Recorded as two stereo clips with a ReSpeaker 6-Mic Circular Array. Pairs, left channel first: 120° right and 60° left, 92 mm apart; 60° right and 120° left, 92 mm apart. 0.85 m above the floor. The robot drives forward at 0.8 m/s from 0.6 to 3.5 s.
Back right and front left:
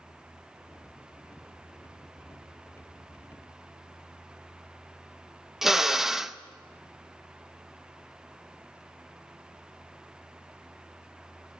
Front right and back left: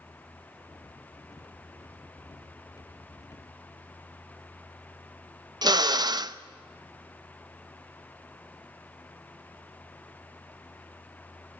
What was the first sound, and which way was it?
A drill, 145° left.